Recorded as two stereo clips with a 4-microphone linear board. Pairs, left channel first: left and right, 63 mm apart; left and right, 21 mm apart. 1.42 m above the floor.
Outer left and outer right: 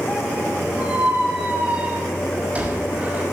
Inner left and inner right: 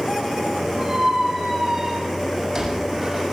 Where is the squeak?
25° right (ahead or behind), 5 m.